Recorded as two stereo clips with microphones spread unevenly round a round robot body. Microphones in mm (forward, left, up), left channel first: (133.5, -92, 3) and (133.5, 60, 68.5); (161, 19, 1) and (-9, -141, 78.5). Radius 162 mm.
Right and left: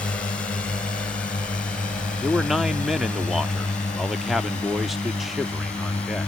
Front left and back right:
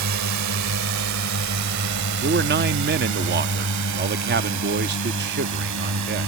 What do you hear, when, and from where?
0.0 s a drone: 165° right; by 6.3 s 170° right
2.2 s a man speaking: 115° right